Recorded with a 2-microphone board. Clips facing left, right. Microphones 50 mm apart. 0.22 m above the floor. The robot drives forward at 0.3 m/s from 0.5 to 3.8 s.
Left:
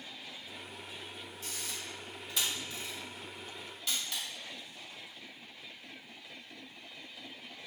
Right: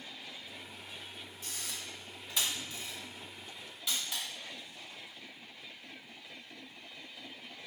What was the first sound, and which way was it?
A camera shutter, 10° right (ahead or behind).